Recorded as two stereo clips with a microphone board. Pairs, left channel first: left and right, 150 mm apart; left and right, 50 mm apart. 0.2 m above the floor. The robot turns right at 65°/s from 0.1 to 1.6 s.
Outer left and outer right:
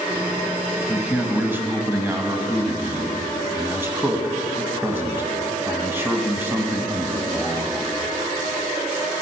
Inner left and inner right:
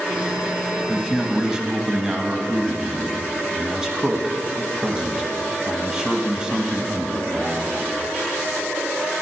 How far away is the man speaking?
About 1.0 m.